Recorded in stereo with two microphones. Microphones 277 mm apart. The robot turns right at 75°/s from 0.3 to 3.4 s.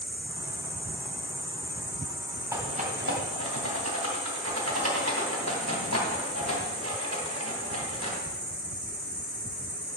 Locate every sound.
0.0 s an insect: 40° right, 5 m; by 10.0 s 165° right, 5 m
2.5 s a rattle: 10° right (ahead or behind), 2 m; by 8.2 s 65° right (ahead or behind), 2 m